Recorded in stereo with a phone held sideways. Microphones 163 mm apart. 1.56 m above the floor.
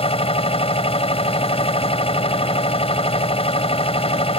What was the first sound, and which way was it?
A machine running, 35° left (ahead or behind).